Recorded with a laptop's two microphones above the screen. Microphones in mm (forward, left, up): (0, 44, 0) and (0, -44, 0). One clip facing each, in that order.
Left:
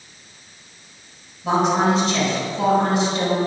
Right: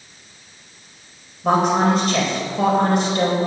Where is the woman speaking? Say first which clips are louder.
Right 1 dB; 60° right (ahead or behind), 4 m.